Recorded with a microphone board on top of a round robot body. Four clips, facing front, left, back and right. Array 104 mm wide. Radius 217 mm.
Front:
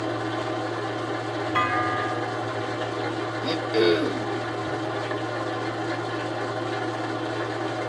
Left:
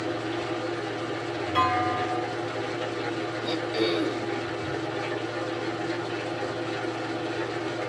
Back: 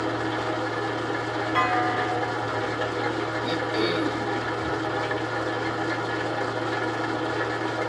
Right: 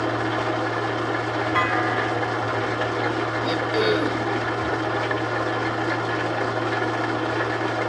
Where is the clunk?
60° right, 1.1 m.